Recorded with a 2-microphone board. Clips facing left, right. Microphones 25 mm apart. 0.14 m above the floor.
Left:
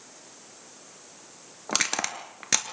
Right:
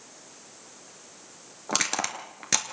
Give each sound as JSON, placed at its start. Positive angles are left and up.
{"t": 1.7, "sound": "crushing", "side_deg": 10, "distance_m": 2.0}